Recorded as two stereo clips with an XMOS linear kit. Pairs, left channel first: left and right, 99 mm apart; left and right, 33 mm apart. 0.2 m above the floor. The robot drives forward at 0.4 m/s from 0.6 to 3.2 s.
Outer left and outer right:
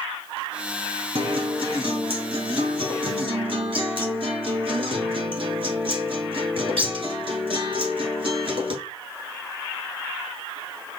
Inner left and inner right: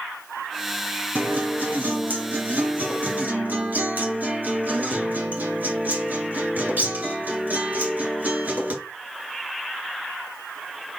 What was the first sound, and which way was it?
A guitar, 65° right (ahead or behind).